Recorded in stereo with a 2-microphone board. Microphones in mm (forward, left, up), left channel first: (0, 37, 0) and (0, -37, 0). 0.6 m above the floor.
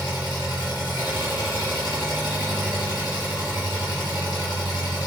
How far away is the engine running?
About 1.9 m.